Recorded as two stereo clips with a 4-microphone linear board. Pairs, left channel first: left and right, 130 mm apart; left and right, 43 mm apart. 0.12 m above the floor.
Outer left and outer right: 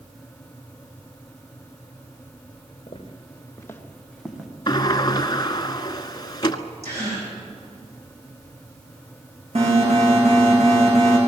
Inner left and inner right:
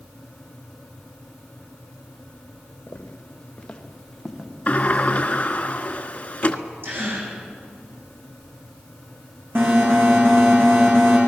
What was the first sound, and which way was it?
Footsteps, 50° left (ahead or behind).